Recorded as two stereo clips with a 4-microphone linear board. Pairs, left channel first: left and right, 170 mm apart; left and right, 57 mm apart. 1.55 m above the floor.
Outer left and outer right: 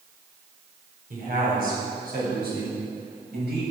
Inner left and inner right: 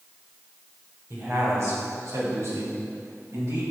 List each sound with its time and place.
1.1 s a man speaking: 55° right (ahead or behind), 5.5 m; by 3.6 s 70° right (ahead or behind), 8 m